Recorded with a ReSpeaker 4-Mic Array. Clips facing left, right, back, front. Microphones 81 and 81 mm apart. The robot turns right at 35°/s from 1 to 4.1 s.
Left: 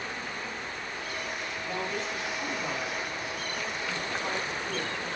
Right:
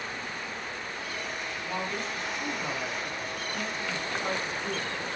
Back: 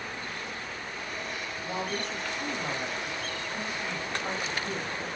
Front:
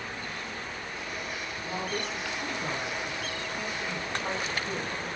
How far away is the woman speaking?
About 1.8 m.